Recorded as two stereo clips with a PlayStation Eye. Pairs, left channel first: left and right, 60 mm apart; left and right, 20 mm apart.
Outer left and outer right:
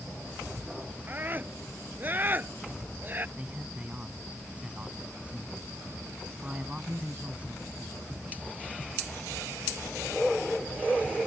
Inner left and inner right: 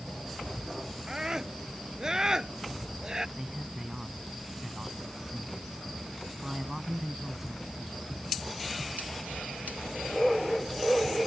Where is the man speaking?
20° right (ahead or behind).